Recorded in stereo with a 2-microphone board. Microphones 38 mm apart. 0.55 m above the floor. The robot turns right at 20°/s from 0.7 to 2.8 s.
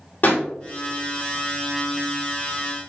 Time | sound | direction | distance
0.2 | a pop | 50° left (ahead or behind) | 1.8 m